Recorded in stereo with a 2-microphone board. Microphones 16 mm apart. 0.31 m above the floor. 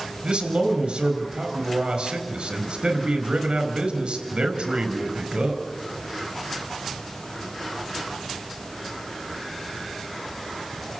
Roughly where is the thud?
No thud in this recording.